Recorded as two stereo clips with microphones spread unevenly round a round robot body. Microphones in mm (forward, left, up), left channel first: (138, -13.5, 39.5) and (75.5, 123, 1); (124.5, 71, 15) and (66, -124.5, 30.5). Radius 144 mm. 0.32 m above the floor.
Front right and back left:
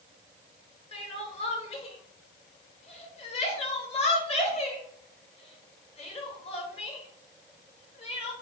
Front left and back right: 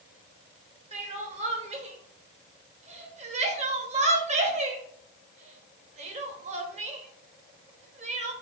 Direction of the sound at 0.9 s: 95° right.